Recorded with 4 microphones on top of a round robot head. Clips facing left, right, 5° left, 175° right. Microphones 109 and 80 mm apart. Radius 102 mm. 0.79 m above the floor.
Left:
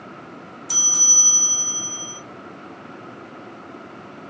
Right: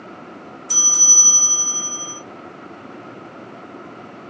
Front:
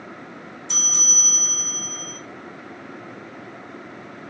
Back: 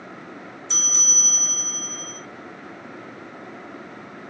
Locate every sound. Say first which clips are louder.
0.7 s a bell: right 3 dB, front 1 dB; 10° left, 2.5 m